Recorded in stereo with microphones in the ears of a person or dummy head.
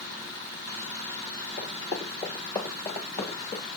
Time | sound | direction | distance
1.6 | running footsteps | 10° right (ahead or behind) | 2.5 m